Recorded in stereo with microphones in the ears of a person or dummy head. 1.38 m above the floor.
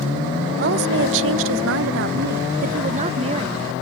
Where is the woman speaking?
60° right (ahead or behind); by 3.7 s 25° right (ahead or behind).